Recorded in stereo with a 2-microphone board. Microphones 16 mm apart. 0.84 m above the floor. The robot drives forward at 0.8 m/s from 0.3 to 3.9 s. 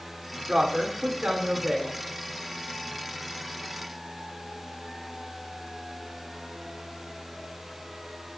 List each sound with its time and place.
0.5 s a woman speaking: 65° right (ahead or behind), 2.5 m; by 2.0 s 45° right (ahead or behind), 3 m